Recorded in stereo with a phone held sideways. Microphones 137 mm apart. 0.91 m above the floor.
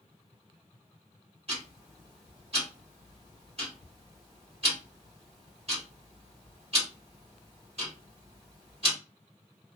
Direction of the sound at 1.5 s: 45° right (ahead or behind).